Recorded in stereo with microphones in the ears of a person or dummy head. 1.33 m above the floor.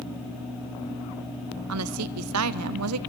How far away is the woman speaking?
About 0.7 m.